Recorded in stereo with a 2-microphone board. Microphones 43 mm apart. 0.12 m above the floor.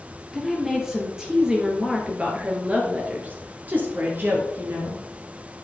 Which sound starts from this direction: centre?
A woman speaking, at 0.3 s.